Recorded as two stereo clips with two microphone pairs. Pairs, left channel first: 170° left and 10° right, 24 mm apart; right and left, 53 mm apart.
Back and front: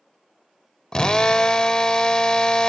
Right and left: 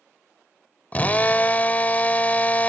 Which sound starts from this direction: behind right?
A drill, at 0.9 s.